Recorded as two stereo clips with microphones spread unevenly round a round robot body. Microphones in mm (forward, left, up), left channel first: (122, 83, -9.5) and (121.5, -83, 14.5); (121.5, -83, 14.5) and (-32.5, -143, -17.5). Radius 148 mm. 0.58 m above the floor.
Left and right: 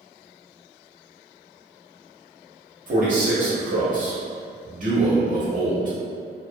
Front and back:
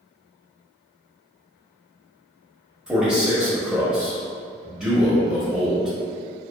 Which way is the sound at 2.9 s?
90° right.